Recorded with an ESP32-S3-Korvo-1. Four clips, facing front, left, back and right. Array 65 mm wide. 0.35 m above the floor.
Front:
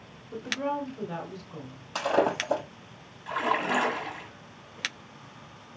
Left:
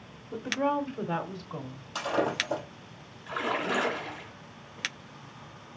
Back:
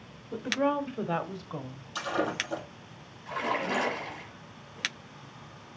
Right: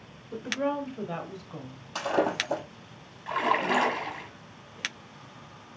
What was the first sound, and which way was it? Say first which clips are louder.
A woman speaking: left 1 dB, back 3 dB; 175° left.